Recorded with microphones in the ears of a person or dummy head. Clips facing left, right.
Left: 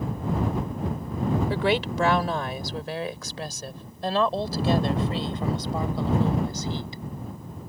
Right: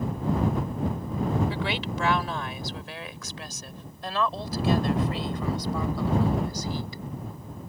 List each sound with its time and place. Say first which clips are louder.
1.5 s a woman speaking: left 6 dB; 50° left (ahead or behind); by 7.0 s 25° left (ahead or behind)